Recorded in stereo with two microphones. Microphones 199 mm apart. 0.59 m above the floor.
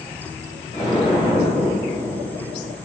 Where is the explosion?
40° left (ahead or behind), 3.5 m.